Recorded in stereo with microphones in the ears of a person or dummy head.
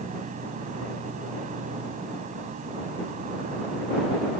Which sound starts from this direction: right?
An insect, at 0.0 s.